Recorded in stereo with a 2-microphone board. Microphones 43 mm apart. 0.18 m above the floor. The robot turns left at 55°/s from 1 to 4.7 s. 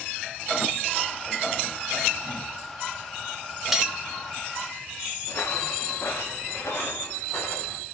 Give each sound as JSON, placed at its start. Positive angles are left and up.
{"t": 3.7, "sound": "cutlery clinking", "side_deg": -5, "distance_m": 1.0}
{"t": 5.3, "sound": "footsteps", "side_deg": 60, "distance_m": 0.8}